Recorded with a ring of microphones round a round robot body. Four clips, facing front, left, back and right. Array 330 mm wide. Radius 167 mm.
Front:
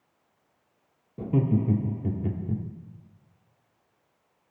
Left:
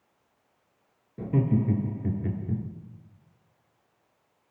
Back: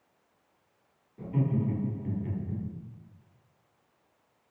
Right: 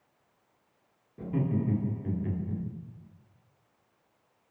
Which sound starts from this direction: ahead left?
Laughter, at 1.2 s.